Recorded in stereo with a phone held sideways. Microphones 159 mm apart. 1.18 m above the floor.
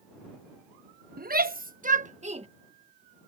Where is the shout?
70° right (ahead or behind); by 2.5 s 40° right (ahead or behind).